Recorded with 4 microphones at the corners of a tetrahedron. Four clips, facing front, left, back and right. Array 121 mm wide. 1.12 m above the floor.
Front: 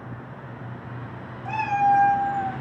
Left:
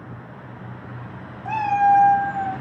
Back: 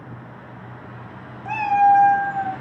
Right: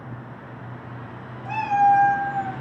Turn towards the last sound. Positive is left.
turn(degrees=-155)